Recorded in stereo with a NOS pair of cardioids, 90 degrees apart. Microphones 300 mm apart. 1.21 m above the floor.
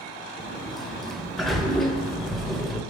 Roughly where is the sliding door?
Ahead.